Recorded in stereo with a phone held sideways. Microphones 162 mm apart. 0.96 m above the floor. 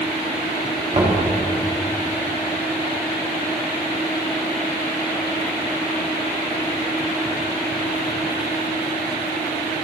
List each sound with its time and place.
0.9 s knocking: 40° right (ahead or behind), 1.4 m